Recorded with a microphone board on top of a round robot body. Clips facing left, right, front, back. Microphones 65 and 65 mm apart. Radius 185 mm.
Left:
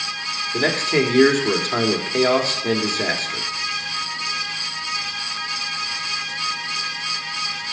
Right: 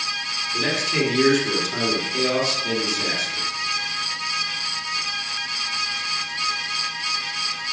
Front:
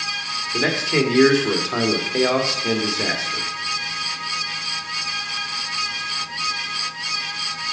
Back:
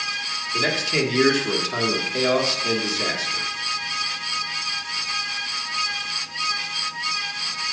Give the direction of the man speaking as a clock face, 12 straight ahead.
10 o'clock.